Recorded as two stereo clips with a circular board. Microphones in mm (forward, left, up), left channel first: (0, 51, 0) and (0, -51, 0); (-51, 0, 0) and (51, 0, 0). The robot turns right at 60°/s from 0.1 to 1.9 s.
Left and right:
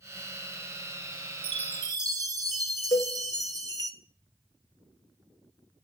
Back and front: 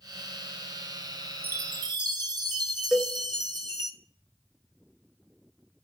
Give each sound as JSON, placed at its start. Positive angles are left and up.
{"t": 1.4, "sound": "a chime", "azimuth_deg": -70, "distance_m": 0.5}
{"t": 2.9, "sound": "a cowbell", "azimuth_deg": 85, "distance_m": 0.8}